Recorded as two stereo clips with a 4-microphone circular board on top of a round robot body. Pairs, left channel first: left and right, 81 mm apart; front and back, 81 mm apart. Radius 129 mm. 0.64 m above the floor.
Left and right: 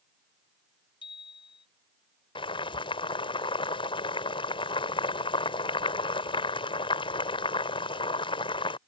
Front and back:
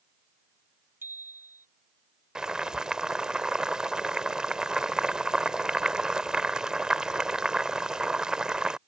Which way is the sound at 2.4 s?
100° left.